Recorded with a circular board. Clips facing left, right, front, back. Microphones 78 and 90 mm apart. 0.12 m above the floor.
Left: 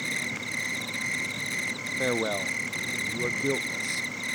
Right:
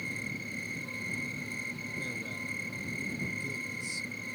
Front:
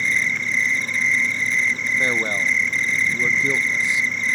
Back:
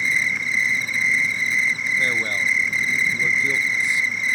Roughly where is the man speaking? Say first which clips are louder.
Left 17 dB, front 3 dB; left.